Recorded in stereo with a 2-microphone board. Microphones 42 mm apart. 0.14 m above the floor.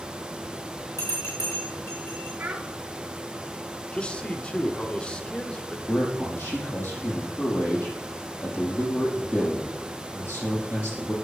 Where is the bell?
85° left, 6.5 m.